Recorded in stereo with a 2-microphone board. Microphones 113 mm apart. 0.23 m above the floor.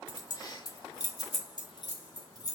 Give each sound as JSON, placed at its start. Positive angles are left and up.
{"t": 0.1, "sound": "keys jangling", "side_deg": 35, "distance_m": 1.2}